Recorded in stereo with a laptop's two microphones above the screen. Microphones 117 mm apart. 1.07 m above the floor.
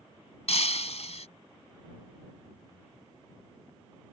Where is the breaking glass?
70° left (ahead or behind).